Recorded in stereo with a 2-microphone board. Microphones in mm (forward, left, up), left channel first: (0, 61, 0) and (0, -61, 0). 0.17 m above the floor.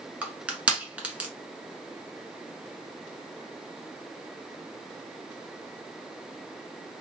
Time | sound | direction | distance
0.2 | crushing | 10° right (ahead or behind) | 1.1 m